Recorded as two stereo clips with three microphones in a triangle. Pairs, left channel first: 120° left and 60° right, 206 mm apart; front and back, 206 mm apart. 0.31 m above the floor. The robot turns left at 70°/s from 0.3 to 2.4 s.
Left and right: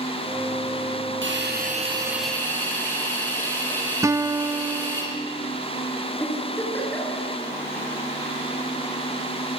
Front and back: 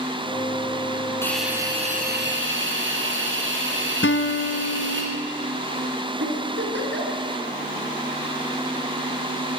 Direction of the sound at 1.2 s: 75° right.